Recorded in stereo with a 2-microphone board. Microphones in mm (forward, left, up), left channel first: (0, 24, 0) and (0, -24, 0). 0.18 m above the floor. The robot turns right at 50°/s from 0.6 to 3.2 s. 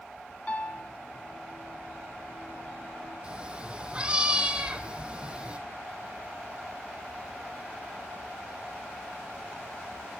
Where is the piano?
30° left (ahead or behind), 0.9 m; by 0.9 s 35° left (ahead or behind), 0.9 m.